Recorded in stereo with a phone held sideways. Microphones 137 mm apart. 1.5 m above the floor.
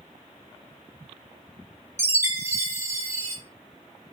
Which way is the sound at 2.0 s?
20° right (ahead or behind).